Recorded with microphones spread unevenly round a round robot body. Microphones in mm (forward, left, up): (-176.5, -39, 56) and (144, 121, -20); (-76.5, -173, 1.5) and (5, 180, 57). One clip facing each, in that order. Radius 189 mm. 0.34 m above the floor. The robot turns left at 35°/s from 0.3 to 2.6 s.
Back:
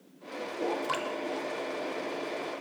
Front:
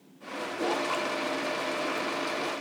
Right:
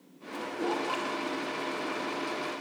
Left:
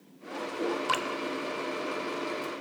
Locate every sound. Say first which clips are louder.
0.9 s dripping: front 2 dB, left 1 dB; 120° left, 0.5 m; by 1.1 s 115° left, 0.5 m